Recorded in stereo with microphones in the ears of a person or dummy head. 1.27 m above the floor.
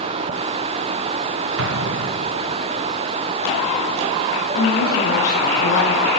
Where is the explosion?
65° right (ahead or behind), 1.6 m.